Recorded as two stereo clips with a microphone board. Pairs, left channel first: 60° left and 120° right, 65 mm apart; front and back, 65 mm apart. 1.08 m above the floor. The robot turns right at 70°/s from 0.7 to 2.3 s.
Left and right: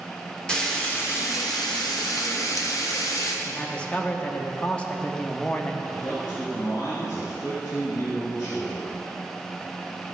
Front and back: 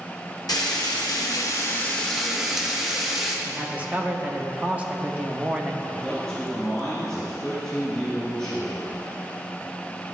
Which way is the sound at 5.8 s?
80° left.